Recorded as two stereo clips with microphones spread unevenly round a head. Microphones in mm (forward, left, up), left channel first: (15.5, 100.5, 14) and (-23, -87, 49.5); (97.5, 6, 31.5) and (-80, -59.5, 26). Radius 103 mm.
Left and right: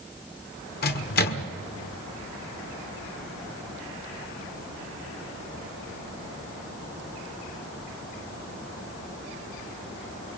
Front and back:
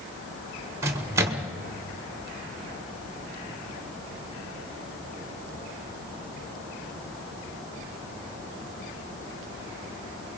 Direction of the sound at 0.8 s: 120° left.